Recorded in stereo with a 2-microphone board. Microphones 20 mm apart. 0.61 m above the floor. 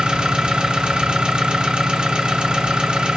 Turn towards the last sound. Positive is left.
turn(degrees=-55)  # may be behind; listen again after turning